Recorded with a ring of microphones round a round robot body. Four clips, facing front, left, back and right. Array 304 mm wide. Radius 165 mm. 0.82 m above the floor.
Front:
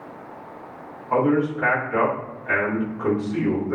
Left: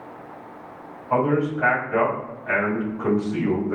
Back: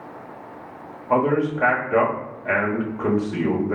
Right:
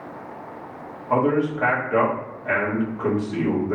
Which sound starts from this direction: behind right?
A man speaking, at 1.1 s.